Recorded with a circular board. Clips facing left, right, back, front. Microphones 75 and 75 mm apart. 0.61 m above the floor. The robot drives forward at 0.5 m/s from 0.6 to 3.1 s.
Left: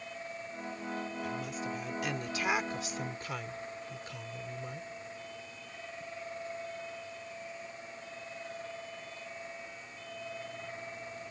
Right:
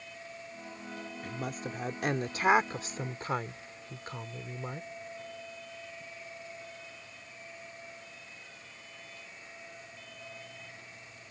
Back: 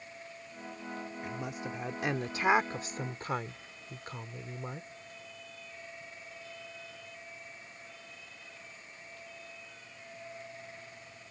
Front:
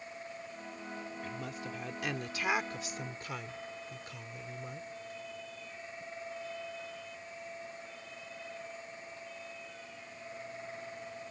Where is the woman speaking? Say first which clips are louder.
Left 1 dB, back 4 dB; 110° right; by 4.9 s 135° right.